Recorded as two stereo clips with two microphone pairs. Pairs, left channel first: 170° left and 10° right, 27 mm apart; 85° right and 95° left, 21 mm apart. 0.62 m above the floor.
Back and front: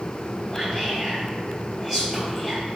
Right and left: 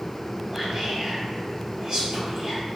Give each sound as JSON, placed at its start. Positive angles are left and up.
{"t": 0.5, "sound": "whispering", "azimuth_deg": 60, "distance_m": 1.3}